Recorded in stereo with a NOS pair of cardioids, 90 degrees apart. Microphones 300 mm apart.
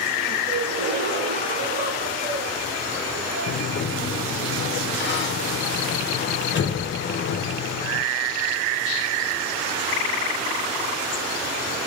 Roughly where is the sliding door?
Ahead left.